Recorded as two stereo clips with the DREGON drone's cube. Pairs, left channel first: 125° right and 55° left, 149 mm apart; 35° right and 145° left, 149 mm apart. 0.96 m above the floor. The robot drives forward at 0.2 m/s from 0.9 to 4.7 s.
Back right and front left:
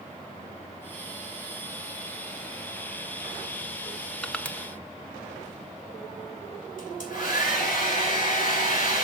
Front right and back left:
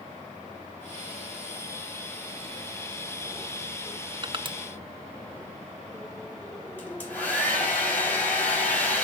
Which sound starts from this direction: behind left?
Crushing, at 4.2 s.